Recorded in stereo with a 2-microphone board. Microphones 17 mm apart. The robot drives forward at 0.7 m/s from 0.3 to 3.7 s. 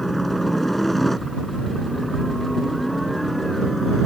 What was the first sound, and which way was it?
A helicopter, 10° left (ahead or behind).